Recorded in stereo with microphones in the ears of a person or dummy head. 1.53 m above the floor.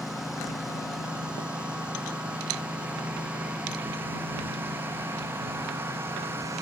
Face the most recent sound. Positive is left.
turn(degrees=-15)  # may be behind; listen again after turning